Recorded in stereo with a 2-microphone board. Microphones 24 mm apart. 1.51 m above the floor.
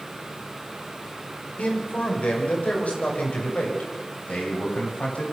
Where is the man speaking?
75° left (ahead or behind), 5.5 m; by 5.2 s 85° left, 7.5 m.